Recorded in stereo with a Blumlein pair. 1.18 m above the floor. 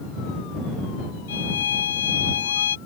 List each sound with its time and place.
1.3 s a violin: 65° left